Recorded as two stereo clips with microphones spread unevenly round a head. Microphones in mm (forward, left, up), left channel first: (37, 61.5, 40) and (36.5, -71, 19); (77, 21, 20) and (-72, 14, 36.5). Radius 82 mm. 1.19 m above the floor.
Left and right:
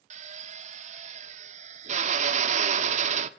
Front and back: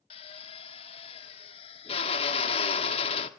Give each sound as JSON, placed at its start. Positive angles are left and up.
{"t": 0.1, "sound": "a drill", "azimuth_deg": -55, "distance_m": 1.1}